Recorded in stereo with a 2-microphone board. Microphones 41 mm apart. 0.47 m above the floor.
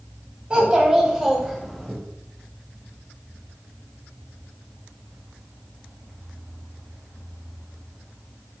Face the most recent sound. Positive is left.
turn(degrees=10)  # may be behind; listen again after turning